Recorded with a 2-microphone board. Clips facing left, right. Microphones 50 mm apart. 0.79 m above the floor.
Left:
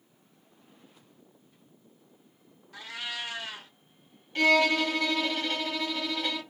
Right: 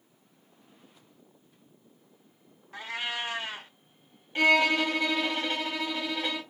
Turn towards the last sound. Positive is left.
turn(degrees=-20)  # may be behind; listen again after turning